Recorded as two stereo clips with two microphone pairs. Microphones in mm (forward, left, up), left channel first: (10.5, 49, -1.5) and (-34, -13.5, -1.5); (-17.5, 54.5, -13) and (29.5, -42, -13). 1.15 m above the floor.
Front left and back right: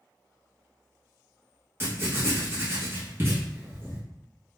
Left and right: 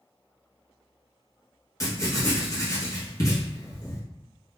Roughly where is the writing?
Behind.